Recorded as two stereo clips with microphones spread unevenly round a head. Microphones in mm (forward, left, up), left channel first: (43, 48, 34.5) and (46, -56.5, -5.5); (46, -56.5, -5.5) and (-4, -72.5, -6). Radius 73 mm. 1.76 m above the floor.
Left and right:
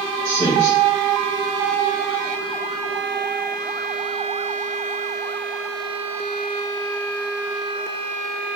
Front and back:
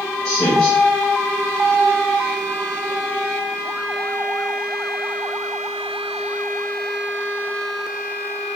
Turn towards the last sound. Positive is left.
turn(degrees=75)